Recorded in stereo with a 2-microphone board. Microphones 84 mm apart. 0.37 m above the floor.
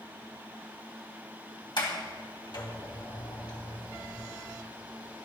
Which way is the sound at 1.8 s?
65° left (ahead or behind).